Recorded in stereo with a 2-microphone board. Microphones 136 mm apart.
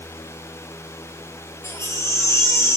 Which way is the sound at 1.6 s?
20° left (ahead or behind).